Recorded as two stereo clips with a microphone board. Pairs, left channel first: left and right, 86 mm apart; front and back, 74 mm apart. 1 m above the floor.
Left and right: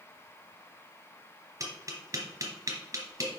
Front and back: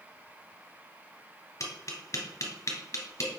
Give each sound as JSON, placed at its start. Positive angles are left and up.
{"t": 1.6, "sound": "tapping", "azimuth_deg": -45, "distance_m": 2.0}